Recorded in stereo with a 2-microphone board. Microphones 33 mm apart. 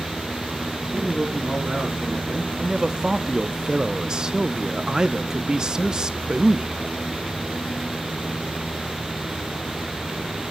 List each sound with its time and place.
0.9 s a man speaking: 40° right (ahead or behind), 8 m
2.6 s a man speaking: 25° right (ahead or behind), 0.6 m